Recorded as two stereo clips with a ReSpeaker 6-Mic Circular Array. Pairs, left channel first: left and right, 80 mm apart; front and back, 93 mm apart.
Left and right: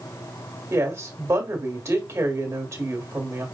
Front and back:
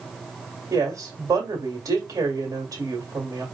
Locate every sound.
0.7 s a woman speaking: 135° right, 1.5 m